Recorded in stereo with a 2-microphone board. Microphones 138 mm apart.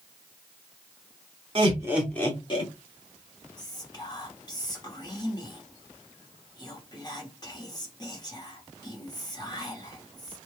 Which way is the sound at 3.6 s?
30° left (ahead or behind).